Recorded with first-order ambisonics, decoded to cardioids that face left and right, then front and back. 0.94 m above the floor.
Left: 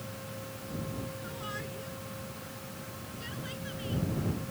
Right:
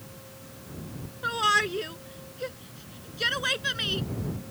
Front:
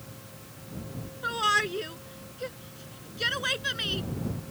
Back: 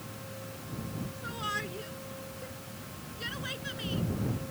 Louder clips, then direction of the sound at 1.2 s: Right 22 dB, front 11 dB; 55° right.